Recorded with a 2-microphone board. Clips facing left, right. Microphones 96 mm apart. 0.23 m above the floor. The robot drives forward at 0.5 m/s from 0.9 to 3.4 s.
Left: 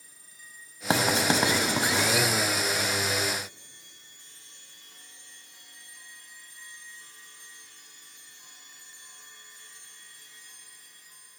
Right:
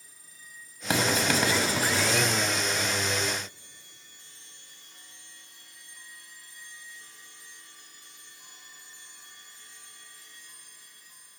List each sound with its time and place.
0.9 s writing: 30° left (ahead or behind), 0.6 m; by 2.2 s 20° left (ahead or behind), 0.8 m